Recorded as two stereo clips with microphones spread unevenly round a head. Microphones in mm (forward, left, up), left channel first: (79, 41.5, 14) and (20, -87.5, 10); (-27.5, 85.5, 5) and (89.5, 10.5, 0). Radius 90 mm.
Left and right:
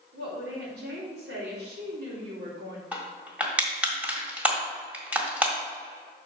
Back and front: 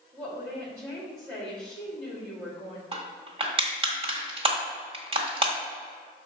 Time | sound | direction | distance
0.1 | a woman speaking | 130° right | 2.5 m
2.9 | crushing | 40° right | 1.6 m